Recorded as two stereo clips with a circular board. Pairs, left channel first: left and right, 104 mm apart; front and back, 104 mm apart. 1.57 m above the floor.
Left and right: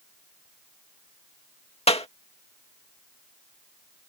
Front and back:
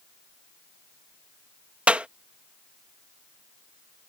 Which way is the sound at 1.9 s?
100° left.